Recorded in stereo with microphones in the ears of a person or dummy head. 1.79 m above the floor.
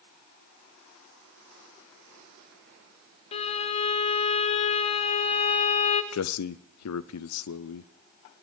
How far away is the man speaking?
About 0.6 m.